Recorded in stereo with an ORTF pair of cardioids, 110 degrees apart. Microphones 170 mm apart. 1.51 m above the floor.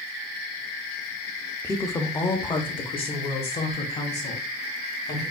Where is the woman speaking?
15° left, 0.9 m; by 5.2 s 45° left, 2.5 m.